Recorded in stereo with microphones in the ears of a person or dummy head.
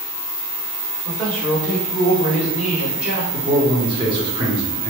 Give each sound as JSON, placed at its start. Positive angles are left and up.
{"t": 1.1, "sound": "a man speaking", "side_deg": 5, "distance_m": 1.5}
{"t": 3.3, "sound": "a man speaking", "side_deg": -25, "distance_m": 0.8}